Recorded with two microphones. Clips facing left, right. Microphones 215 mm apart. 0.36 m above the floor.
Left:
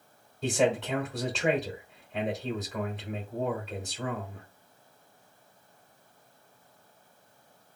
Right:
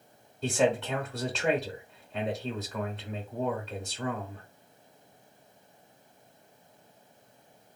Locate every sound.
0.4 s a man speaking: centre (ahead or behind), 0.8 m